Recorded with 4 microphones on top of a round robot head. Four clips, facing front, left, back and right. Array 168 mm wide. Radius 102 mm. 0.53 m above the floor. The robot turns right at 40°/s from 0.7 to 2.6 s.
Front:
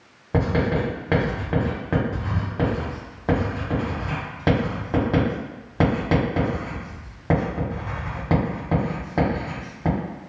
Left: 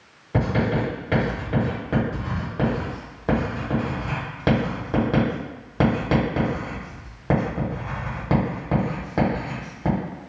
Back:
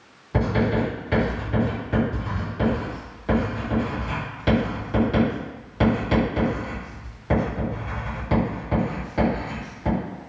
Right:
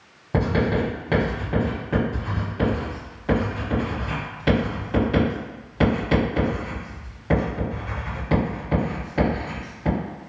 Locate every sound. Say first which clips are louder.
0.3 s writing: right 1 dB, even; 35° right, 1.5 m; by 10.0 s 45° left, 1.5 m